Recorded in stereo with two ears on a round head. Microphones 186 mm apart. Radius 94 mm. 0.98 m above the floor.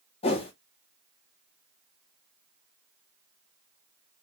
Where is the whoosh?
30° left (ahead or behind), 0.7 m.